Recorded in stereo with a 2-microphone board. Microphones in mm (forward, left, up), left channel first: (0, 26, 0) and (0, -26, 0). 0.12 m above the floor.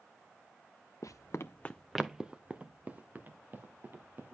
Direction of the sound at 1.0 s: 80° left.